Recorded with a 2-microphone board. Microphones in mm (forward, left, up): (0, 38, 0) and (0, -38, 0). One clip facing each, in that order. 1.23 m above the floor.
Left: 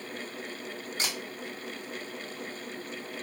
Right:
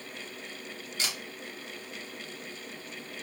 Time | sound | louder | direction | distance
1.0 | a camera shutter | left 1 dB | 40° left (ahead or behind) | 1.1 m